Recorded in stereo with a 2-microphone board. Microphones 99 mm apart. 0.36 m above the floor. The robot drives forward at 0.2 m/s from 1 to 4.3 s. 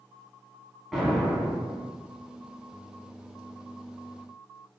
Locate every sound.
0.9 s an explosion: centre (ahead or behind), 1.0 m